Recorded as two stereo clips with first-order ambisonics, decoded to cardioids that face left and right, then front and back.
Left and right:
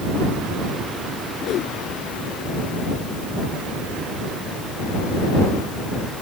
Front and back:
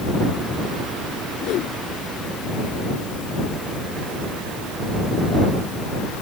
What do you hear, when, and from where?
1.4 s a whoosh: 40° left